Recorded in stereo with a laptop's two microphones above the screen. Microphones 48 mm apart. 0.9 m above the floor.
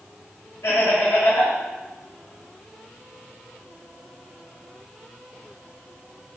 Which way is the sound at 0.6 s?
75° left (ahead or behind).